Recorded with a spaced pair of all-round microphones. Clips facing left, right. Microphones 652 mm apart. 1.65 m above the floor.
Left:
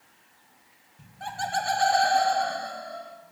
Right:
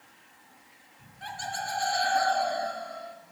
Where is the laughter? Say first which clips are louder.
Left 6 dB; 60° left (ahead or behind), 1.3 m; by 3.1 s 15° left (ahead or behind), 1.3 m.